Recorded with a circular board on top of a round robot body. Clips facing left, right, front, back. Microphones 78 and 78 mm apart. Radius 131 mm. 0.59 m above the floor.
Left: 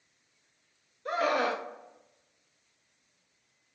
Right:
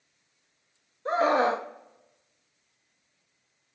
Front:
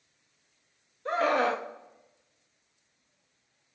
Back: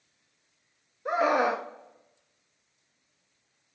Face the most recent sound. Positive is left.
turn(degrees=-115)